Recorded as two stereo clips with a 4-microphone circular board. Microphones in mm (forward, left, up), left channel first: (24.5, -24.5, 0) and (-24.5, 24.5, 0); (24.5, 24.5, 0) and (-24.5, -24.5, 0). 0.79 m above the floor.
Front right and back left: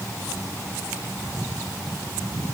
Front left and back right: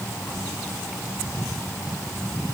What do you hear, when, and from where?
Only background noise.